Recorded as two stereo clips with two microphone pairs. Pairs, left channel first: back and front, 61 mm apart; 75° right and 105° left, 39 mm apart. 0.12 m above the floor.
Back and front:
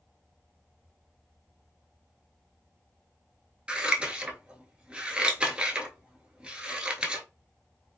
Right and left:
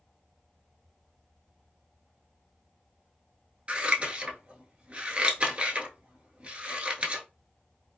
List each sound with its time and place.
3.7 s scissors: 70° left, 0.6 m